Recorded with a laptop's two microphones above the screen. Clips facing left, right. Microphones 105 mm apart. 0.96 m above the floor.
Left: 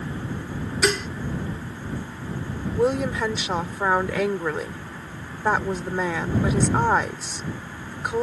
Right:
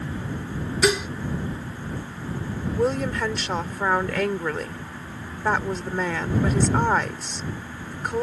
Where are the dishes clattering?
10° right (ahead or behind).